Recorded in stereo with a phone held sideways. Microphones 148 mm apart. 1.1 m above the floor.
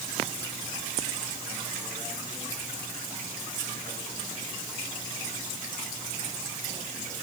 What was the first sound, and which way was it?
Only background noise.